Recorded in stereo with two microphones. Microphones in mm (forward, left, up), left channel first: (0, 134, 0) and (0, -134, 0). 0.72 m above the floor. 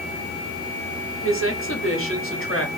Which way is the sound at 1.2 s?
50° left (ahead or behind).